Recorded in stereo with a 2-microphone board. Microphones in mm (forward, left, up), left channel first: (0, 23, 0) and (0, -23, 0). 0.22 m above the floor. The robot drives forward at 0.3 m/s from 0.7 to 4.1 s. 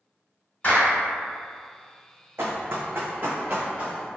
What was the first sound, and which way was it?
A clap, 35° left (ahead or behind).